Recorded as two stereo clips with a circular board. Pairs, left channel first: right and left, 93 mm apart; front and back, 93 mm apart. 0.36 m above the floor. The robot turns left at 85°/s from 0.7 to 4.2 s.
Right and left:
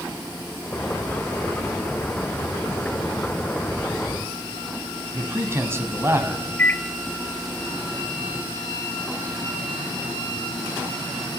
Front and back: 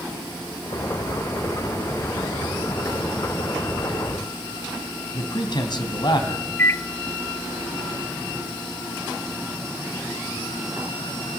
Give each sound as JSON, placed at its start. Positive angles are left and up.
{"t": 5.1, "sound": "a man speaking", "azimuth_deg": 30, "distance_m": 3.0}
{"t": 6.6, "sound": "a microwave", "azimuth_deg": -40, "distance_m": 0.7}